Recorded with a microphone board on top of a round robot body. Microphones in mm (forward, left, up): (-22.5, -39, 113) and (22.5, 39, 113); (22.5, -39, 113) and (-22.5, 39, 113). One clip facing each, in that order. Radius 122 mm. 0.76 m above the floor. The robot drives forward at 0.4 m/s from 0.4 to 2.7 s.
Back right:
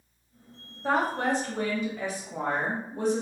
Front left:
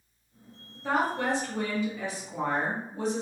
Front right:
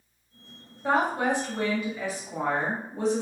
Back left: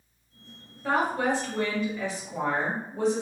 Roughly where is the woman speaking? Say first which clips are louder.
Back right 1 dB, front right 1 dB; right.